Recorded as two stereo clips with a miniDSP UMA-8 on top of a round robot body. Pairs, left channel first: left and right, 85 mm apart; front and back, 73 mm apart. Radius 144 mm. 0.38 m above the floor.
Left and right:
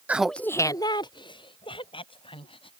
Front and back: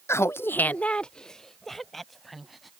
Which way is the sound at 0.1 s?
30° right.